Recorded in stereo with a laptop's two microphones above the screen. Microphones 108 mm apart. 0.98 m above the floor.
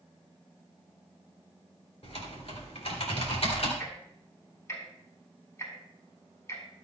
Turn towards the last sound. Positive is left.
turn(degrees=25)  # may be behind; listen again after turning